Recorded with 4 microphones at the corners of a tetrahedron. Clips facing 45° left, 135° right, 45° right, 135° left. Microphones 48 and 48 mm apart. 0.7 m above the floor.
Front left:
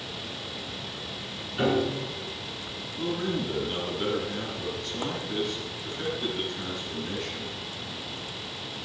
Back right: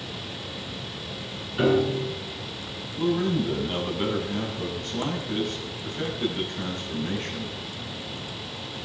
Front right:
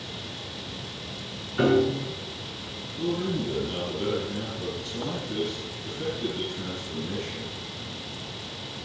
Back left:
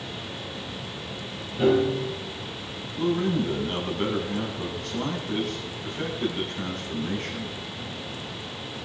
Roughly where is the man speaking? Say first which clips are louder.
Back right 5 dB, back left 4 dB; behind.